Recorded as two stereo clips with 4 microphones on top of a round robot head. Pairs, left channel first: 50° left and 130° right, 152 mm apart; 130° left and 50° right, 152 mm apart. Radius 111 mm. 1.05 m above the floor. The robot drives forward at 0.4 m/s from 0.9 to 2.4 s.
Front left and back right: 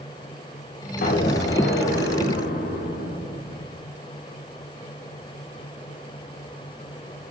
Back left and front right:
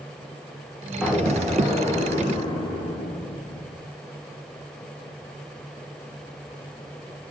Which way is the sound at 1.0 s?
45° left.